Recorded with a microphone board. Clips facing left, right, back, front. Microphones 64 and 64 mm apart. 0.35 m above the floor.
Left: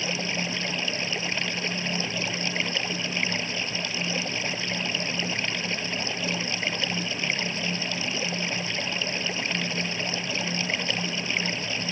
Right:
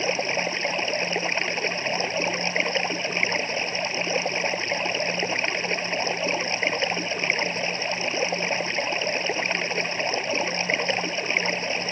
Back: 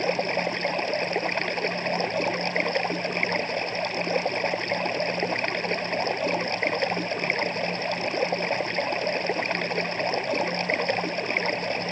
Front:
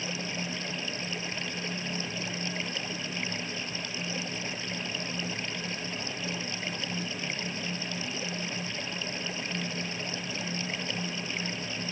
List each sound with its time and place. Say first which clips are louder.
0.0 s running water: right 5 dB, back 11 dB; 145° right